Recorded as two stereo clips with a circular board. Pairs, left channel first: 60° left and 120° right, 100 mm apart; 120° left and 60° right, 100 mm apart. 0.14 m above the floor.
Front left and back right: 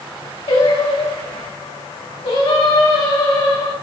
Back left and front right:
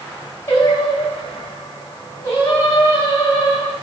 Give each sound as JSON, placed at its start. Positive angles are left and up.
{"t": 0.5, "sound": "singing", "azimuth_deg": 55, "distance_m": 4.0}